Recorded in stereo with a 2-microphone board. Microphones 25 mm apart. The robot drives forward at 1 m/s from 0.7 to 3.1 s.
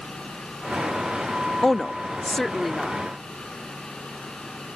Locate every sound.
1.6 s a woman speaking: 15° left (ahead or behind); by 3.0 s 5° left (ahead or behind)